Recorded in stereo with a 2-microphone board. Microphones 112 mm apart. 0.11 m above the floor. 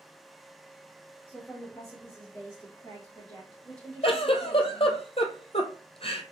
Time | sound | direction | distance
1.3 | a woman speaking | 10° left (ahead or behind) | 2 m
4.0 | a giggle | 55° left (ahead or behind) | 0.7 m